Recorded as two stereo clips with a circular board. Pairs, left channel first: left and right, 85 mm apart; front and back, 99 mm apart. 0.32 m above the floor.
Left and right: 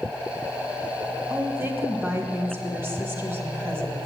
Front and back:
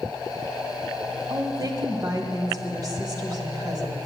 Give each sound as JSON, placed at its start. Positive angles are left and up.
{"t": 1.3, "sound": "a woman speaking", "azimuth_deg": -145, "distance_m": 1.7}